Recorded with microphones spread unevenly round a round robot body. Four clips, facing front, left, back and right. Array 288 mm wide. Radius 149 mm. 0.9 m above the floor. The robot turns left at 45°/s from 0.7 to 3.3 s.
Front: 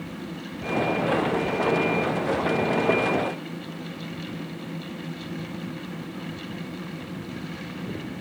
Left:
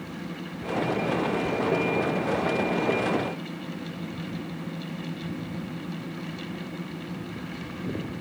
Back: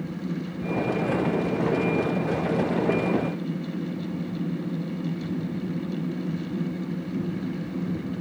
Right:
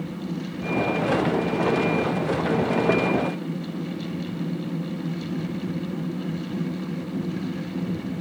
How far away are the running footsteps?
I don't hear running footsteps.